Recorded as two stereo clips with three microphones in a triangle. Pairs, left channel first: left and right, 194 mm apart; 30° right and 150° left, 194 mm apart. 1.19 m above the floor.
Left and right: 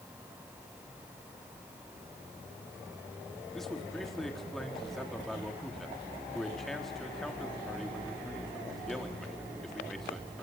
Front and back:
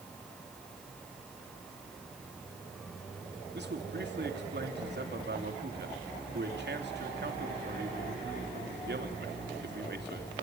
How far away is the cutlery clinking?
No cutlery clinking in this recording.